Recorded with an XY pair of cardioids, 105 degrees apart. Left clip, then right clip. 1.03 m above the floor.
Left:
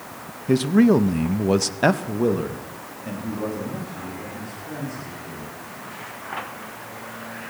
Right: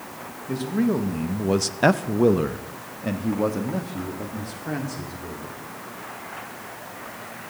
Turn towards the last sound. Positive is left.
turn(degrees=-65)